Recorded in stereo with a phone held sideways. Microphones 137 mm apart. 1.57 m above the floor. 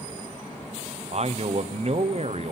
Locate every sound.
1.1 s a man speaking: 50° right (ahead or behind), 0.6 m